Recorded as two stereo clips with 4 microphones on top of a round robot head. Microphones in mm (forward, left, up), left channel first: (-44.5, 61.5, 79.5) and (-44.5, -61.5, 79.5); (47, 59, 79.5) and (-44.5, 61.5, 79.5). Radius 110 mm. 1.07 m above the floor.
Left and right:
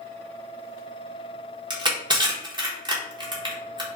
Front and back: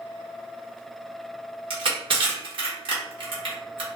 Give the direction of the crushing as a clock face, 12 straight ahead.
5 o'clock.